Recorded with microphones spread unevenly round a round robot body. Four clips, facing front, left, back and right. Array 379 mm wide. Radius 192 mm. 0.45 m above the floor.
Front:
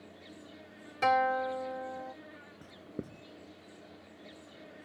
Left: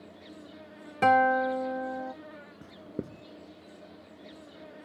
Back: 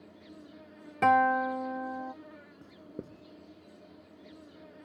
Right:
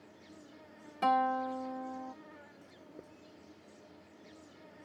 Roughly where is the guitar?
Behind left.